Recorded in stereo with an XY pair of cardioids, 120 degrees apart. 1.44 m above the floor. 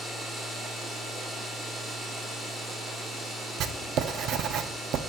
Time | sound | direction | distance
0.0 | a machine running | 20° right | 4 m
3.6 | writing | 65° right | 0.5 m